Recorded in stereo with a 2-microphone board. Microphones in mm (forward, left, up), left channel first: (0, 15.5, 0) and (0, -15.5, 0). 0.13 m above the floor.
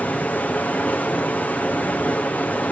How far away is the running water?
About 0.9 m.